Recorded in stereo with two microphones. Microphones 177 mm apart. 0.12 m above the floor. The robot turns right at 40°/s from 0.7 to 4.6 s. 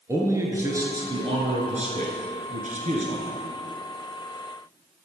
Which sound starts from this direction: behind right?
A man speaking, at 0.1 s.